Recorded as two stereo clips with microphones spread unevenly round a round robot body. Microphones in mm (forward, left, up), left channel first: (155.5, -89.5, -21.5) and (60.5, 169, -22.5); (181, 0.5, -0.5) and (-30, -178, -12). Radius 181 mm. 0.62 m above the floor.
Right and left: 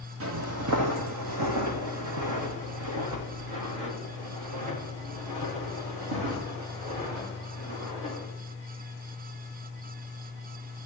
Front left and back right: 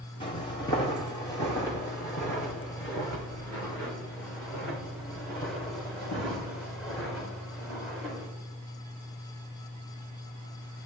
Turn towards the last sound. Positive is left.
turn(degrees=130)